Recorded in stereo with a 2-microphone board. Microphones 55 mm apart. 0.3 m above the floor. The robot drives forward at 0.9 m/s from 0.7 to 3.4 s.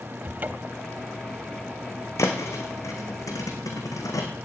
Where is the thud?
65° left (ahead or behind), 3.5 m; by 4.3 s 80° left, 3 m.